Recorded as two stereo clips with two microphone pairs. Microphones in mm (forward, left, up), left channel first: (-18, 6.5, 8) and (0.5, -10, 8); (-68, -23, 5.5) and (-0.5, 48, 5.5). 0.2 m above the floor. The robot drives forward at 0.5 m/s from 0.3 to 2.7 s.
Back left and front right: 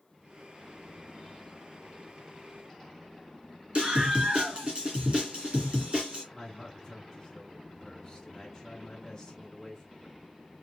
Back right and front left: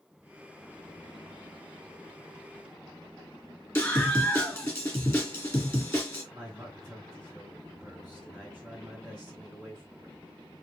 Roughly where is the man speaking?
Behind left.